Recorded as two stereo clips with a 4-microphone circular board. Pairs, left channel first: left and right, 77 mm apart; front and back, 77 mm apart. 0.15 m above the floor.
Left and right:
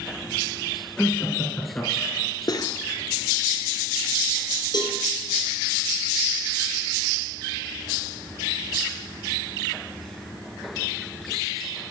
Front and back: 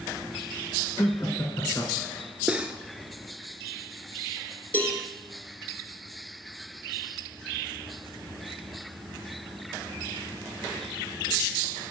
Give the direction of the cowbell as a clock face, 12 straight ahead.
10 o'clock.